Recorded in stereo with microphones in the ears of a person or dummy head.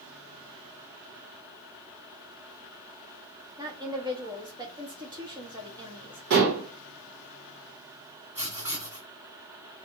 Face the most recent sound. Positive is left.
turn(degrees=-40)  # may be behind; listen again after turning